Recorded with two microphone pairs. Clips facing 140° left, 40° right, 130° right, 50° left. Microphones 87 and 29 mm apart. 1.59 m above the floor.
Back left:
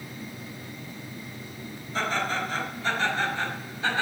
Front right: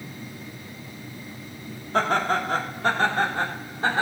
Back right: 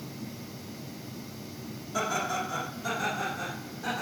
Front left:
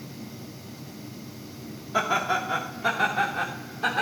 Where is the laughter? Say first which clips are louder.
Front right 6 dB, front left 5 dB; 10° right, 3 m; by 4.0 s 15° left, 4 m.